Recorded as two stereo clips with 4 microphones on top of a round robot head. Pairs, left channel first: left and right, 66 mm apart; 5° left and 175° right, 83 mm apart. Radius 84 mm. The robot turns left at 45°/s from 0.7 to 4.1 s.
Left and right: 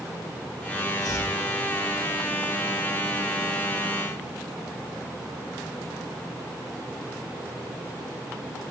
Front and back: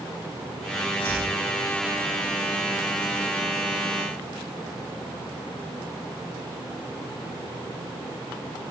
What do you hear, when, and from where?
1.0 s chopping: 120° left, 9.5 m; by 1.3 s 110° left, 9.5 m